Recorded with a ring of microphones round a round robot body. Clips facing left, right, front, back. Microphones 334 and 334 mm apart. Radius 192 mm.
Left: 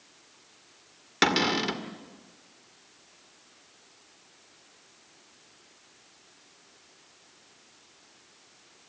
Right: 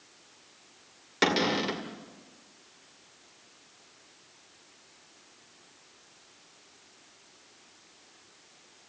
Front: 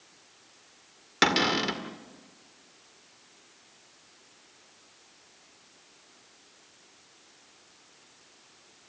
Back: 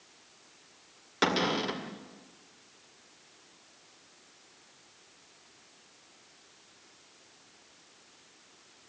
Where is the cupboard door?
35° left, 2 m.